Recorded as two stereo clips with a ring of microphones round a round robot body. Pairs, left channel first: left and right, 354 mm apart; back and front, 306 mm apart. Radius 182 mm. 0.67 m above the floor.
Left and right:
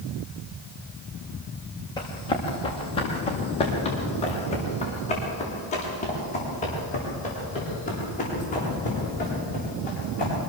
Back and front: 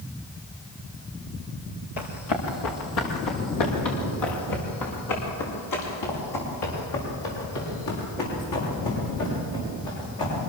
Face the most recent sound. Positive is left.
turn(degrees=160)